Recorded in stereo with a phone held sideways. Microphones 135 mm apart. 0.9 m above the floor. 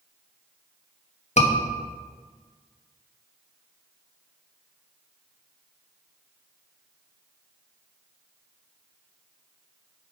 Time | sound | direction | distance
1.4 | a scream | 55° left (ahead or behind) | 1.1 m